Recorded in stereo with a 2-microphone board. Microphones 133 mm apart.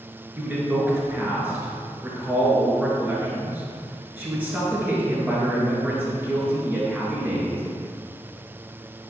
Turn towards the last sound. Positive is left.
turn(degrees=-15)  # may be behind; listen again after turning